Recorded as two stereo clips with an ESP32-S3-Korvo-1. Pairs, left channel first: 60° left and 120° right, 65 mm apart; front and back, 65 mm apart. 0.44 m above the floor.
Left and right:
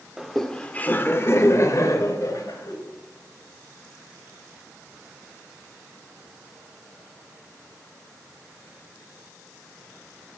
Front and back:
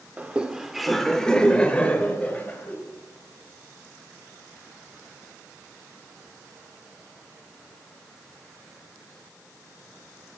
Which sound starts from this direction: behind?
Laughter, at 0.2 s.